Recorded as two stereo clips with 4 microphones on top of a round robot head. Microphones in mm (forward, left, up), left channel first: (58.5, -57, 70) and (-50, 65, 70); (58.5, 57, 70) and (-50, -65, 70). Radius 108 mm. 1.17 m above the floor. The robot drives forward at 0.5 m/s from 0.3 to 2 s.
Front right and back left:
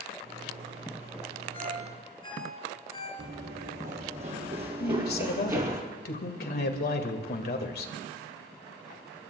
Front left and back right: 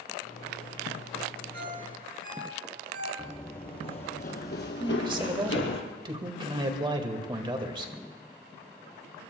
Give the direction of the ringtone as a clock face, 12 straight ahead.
4 o'clock.